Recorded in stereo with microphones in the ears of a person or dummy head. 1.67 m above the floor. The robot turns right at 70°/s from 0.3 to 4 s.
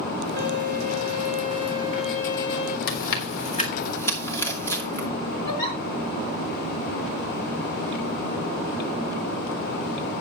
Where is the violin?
120° right, 2.5 m; by 2.8 s 50° left, 2.5 m.